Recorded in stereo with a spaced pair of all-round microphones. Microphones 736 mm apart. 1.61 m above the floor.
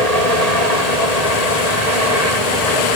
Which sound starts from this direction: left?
A helicopter, at 0.0 s.